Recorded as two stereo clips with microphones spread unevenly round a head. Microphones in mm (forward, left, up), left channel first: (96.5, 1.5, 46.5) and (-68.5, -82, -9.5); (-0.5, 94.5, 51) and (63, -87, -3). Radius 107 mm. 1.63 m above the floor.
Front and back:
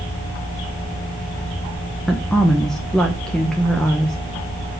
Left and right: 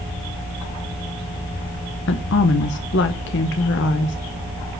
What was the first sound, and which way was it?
A woman speaking, 105° left.